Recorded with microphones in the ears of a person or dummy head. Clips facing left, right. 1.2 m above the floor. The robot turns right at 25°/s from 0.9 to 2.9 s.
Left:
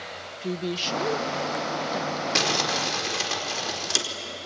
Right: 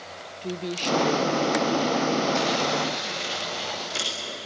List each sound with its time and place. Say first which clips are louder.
0.4 s a woman speaking: even; 5° left, 0.6 m; by 2.2 s 40° left, 0.6 m
2.4 s crumpling: right 3 dB; 85° left, 4 m; by 4.0 s 75° left (ahead or behind), 4 m